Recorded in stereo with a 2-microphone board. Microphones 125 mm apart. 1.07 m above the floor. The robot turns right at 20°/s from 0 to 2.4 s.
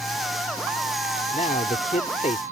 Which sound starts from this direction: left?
A man speaking, at 1.3 s.